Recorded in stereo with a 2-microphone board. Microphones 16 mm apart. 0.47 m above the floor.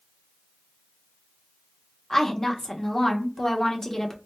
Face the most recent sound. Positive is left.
turn(degrees=25)  # may be behind; listen again after turning